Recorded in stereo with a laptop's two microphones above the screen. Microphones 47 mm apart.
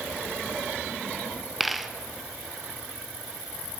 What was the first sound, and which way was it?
A dropped coin, centre (ahead or behind).